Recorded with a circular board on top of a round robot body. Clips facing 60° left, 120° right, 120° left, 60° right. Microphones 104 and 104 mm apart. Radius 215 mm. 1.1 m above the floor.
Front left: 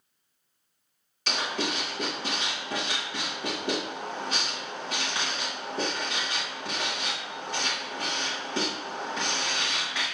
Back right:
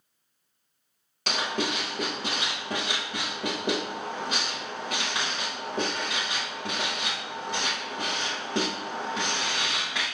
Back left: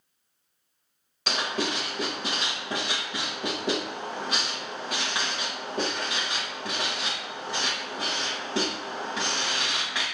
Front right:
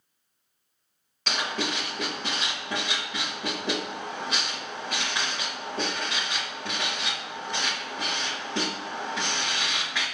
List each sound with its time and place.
1.3 s writing: 160° right, 0.7 m